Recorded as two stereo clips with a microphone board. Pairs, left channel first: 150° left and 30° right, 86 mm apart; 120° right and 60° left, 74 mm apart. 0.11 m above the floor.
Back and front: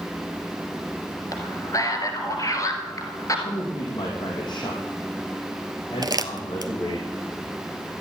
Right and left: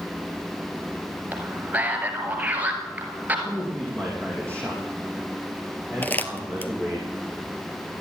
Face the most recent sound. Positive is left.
turn(degrees=-55)